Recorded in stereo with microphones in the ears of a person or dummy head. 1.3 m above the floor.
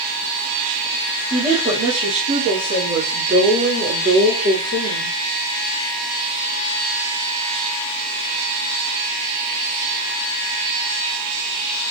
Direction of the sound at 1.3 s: 15° right (ahead or behind).